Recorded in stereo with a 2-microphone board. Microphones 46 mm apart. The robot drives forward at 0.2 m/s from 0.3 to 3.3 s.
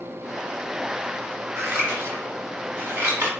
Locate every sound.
1.6 s scissors: 50° right (ahead or behind), 0.9 m; by 3.3 s 40° right (ahead or behind), 1.1 m